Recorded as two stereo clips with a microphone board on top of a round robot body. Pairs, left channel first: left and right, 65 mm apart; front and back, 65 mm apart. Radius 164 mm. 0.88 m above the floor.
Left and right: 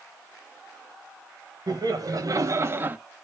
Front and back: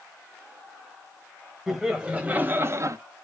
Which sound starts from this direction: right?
Laughter, at 1.7 s.